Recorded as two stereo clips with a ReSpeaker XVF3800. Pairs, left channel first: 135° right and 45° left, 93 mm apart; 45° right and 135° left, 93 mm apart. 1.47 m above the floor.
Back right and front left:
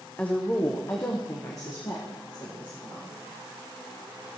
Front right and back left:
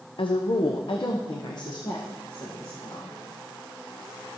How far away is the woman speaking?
About 0.7 m.